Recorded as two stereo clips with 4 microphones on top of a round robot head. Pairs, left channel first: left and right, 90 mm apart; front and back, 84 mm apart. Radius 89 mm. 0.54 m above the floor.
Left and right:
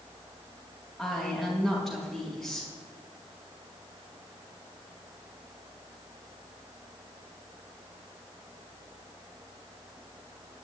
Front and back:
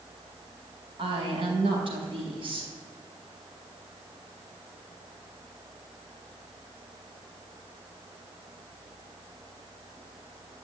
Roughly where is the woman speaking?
Behind.